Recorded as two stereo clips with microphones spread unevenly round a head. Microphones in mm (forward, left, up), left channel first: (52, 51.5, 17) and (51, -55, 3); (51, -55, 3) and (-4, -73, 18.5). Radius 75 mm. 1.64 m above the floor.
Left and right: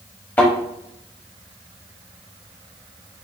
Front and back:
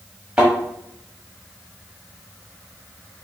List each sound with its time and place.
0.4 s a thud: 145° left, 1.2 m